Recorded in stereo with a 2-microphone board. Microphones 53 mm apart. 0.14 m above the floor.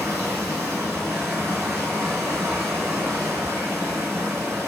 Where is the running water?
75° right (ahead or behind), 1.5 m.